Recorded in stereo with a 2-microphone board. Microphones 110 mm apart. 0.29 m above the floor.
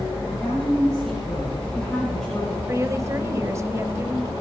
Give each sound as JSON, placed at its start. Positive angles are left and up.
{"t": 0.3, "sound": "a woman speaking", "side_deg": 5, "distance_m": 7.5}
{"t": 2.7, "sound": "a woman speaking", "side_deg": -30, "distance_m": 1.0}